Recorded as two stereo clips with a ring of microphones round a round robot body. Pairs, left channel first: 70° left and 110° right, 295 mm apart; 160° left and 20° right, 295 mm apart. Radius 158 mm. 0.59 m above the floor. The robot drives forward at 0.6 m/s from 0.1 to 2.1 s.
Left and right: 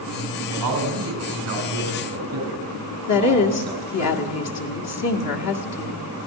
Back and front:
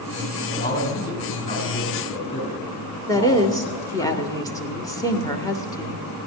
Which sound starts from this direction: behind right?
A man speaking, at 0.5 s.